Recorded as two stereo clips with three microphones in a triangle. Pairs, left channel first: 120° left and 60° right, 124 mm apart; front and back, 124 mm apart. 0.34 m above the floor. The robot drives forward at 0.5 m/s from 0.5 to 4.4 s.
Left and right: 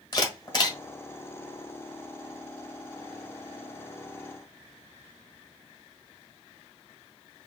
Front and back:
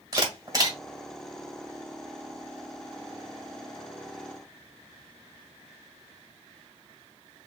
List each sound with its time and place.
0.1 s a camera shutter: 145° left, 1.6 m